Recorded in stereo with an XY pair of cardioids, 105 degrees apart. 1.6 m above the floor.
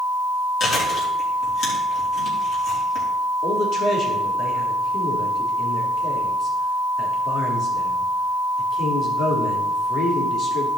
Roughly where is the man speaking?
Ahead left.